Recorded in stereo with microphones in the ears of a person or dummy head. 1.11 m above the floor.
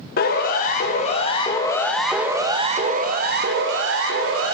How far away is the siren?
About 3.5 m.